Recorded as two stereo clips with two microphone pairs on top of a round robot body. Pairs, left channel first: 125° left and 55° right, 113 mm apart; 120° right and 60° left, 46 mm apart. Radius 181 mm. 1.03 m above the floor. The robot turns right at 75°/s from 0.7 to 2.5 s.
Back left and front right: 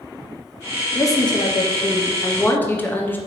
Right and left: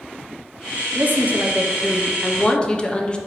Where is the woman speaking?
70° left, 0.7 m; by 3.2 s 175° right, 0.7 m.